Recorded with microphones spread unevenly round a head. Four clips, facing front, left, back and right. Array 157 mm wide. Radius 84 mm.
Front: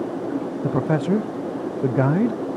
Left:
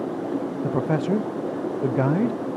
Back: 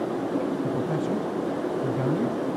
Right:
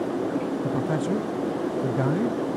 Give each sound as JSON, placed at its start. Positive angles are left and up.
{"t": 0.6, "sound": "a man speaking", "azimuth_deg": 25, "distance_m": 0.5}